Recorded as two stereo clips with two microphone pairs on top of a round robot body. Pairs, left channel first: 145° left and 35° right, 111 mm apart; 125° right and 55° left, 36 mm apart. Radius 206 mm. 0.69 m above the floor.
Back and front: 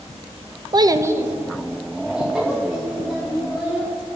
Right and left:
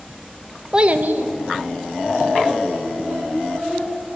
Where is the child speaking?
25° right, 0.6 m; by 3.9 s 55° left, 4 m.